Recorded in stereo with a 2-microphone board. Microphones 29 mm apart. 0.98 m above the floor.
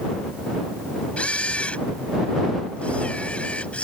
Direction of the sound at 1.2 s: 50° left (ahead or behind).